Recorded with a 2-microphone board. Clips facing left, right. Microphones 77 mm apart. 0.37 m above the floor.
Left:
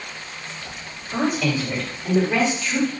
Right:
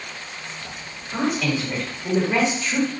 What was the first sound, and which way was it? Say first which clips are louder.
A woman speaking: left 1 dB; 25° left (ahead or behind).